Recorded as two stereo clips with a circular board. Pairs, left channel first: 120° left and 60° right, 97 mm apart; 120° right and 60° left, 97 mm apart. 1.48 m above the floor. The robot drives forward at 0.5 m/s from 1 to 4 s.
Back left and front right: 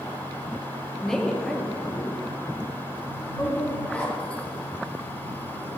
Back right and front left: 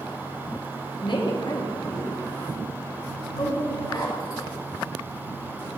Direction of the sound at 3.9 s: 160° right.